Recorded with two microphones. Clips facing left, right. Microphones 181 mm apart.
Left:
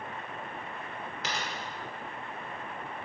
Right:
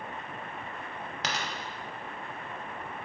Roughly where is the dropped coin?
Right.